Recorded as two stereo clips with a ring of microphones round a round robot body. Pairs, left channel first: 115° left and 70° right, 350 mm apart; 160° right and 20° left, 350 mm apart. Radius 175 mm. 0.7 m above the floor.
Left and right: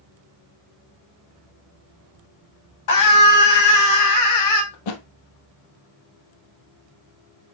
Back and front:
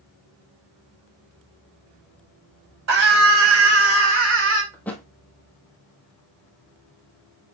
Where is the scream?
70° left, 5.5 m; by 4.6 s 75° left, 4.5 m.